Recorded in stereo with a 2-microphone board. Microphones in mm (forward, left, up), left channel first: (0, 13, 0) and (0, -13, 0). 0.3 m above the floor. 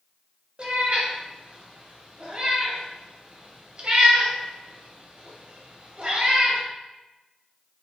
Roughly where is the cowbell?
I don't hear a cowbell.